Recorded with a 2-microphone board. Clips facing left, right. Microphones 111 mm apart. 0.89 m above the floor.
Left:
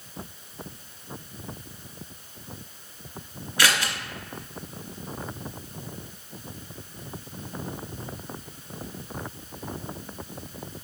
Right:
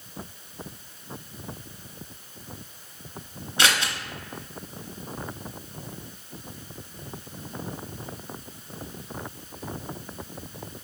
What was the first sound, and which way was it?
Scissors, 25° right (ahead or behind).